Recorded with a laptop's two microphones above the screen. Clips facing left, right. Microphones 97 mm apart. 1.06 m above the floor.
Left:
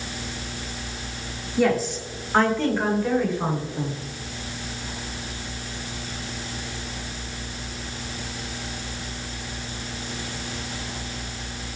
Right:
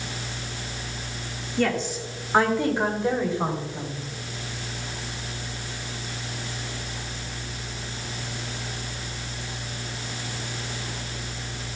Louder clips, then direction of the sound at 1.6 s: Left 3 dB; 10° left (ahead or behind).